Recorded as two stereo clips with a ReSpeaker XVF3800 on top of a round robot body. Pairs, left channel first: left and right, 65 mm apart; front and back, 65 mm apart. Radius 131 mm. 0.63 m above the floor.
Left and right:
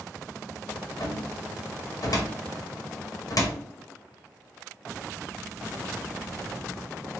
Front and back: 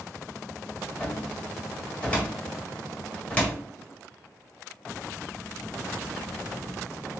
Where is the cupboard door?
70° left, 1.8 m.